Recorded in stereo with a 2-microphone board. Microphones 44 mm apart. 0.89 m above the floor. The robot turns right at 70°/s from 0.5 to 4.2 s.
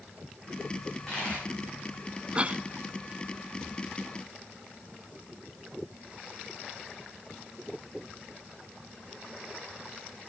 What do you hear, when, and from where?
0.8 s a dropped coin: centre (ahead or behind), 7.5 m; by 1.5 s 45° left (ahead or behind), 7.5 m
2.4 s a cough: 25° right (ahead or behind), 0.9 m; by 2.6 s 40° right (ahead or behind), 0.9 m